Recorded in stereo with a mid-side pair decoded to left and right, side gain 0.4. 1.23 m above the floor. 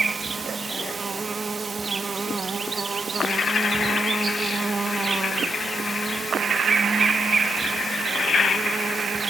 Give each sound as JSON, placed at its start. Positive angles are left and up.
{"t": 0.0, "sound": "an insect", "azimuth_deg": -30, "distance_m": 1.5}